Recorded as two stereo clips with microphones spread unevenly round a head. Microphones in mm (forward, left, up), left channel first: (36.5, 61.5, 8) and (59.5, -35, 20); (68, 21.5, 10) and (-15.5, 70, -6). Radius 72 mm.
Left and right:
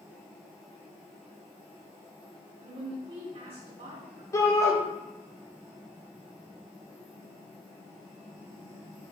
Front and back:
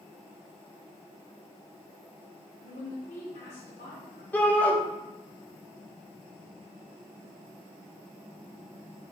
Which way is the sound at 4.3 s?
40° left.